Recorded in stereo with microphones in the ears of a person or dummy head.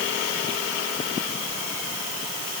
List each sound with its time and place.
Only background noise.